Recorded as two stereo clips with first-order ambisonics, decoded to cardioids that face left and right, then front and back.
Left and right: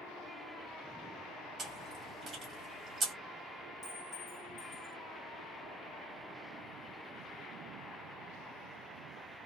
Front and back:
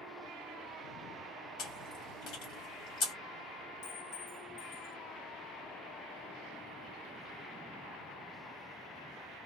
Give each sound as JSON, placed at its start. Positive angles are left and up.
{"t": 1.6, "sound": "chewing", "azimuth_deg": -20, "distance_m": 1.7}
{"t": 3.8, "sound": "a clink", "azimuth_deg": 20, "distance_m": 1.2}